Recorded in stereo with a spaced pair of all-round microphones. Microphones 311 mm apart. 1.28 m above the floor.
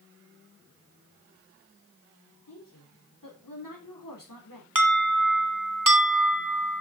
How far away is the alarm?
About 1.9 m.